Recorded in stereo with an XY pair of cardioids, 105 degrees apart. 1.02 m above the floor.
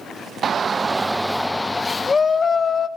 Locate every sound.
0.4 s a shout: 45° right, 0.7 m; by 2.9 s 40° left, 1.3 m